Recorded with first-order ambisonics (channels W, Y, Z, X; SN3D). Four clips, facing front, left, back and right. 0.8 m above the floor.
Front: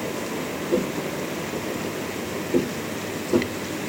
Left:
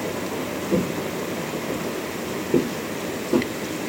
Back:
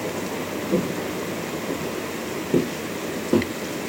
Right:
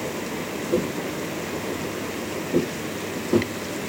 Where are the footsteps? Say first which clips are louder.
Left 1 dB, even; 105° left, 1.6 m; by 3.5 s 165° right, 1.0 m.